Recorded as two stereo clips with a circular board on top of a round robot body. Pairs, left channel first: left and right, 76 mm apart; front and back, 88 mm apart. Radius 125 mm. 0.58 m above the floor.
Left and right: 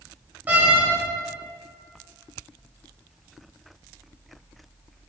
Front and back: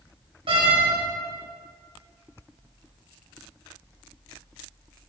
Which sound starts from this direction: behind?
A door slam, at 0.5 s.